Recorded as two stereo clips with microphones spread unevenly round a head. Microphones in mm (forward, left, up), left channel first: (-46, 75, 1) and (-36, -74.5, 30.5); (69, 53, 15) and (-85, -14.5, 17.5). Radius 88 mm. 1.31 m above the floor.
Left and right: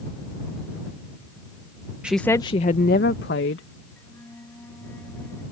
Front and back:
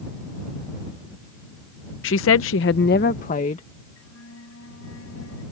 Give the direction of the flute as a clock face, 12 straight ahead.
12 o'clock.